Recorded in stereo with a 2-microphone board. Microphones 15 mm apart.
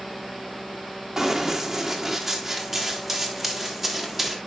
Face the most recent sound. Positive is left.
turn(degrees=0)  # may be behind; listen again after turning